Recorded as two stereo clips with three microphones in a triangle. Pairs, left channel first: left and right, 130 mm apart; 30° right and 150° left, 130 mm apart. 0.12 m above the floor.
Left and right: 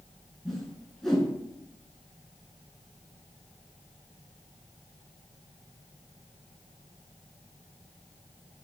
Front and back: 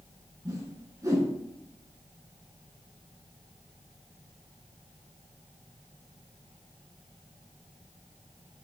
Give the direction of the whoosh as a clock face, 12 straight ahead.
6 o'clock.